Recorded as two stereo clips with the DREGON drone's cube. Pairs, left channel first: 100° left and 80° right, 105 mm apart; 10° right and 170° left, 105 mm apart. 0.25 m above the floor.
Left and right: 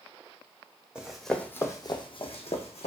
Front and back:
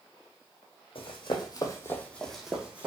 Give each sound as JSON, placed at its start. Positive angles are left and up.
{"t": 0.9, "sound": "running footsteps", "azimuth_deg": 5, "distance_m": 0.7}